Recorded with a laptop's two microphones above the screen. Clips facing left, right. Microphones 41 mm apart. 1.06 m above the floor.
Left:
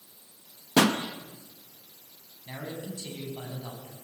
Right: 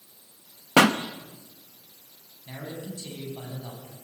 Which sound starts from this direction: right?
A pop, at 0.8 s.